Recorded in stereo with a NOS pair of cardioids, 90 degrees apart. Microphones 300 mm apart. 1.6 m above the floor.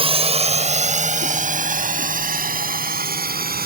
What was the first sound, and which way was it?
A drone, 20° right.